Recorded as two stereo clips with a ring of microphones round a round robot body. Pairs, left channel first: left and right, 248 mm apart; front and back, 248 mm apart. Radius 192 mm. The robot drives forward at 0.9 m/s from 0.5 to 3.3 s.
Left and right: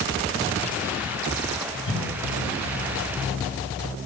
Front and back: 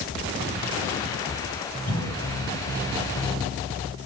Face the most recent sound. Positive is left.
turn(degrees=65)